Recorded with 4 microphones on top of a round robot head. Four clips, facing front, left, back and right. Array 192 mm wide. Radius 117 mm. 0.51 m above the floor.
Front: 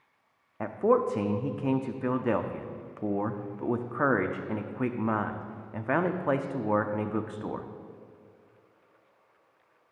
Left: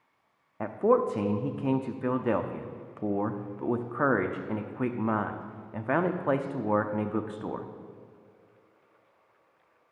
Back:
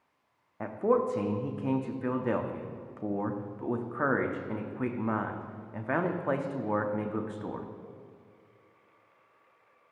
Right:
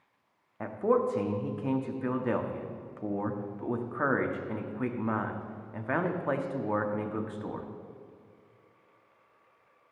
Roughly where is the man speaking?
Ahead left.